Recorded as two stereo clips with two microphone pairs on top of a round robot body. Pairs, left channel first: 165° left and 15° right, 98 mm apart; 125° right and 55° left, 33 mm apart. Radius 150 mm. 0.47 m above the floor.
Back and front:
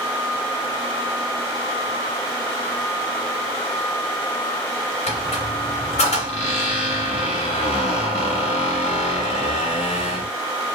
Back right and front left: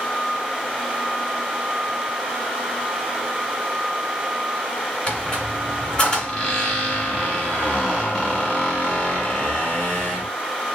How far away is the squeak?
About 0.8 m.